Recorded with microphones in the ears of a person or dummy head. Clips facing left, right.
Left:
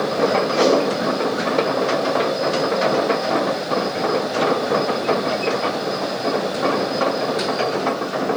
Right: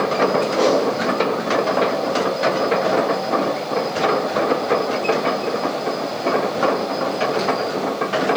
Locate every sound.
0.5 s a whoosh: 30° left (ahead or behind), 6.5 m